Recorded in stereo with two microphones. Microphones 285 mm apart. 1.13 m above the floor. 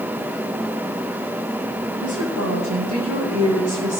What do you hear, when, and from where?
2.0 s a woman speaking: 75° right (ahead or behind), 7.5 m; by 4.0 s 65° right (ahead or behind), 7 m